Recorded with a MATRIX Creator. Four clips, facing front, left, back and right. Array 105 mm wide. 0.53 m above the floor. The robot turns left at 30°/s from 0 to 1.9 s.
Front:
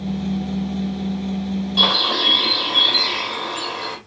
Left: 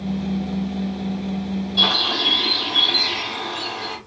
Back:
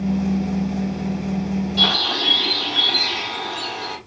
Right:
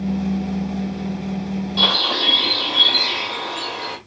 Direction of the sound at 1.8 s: 25° right.